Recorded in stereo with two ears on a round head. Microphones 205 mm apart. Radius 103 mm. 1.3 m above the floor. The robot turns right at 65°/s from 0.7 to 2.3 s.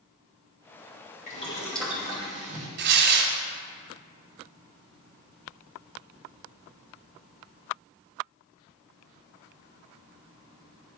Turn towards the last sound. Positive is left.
turn(degrees=-50)  # may be behind; listen again after turning